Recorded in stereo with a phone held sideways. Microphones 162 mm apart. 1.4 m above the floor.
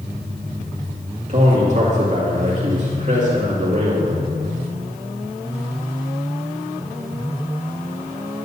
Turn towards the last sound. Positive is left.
turn(degrees=-50)  # may be behind; listen again after turning